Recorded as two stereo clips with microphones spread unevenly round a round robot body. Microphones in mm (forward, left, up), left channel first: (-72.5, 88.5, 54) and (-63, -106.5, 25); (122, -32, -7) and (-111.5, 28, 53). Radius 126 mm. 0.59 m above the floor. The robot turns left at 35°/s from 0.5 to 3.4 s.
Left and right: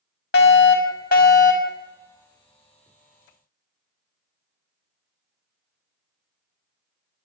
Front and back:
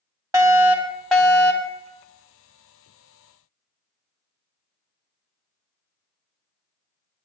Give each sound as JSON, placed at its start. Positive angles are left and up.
{"t": 0.3, "sound": "a fire alarm", "azimuth_deg": 80, "distance_m": 2.0}